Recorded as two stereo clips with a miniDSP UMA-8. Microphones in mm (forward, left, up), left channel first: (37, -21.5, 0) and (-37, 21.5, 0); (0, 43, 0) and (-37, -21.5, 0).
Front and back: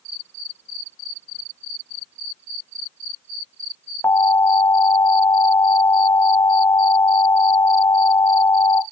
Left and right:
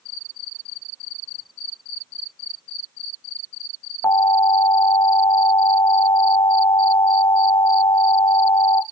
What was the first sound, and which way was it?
An alarm, 25° left.